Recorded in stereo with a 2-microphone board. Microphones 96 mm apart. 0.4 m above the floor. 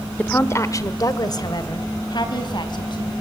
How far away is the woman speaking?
About 0.9 m.